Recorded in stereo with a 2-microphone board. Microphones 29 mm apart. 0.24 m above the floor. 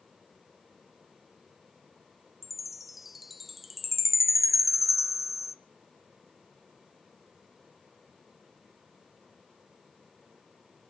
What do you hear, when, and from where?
2.4 s a chime: 5° right (ahead or behind), 0.6 m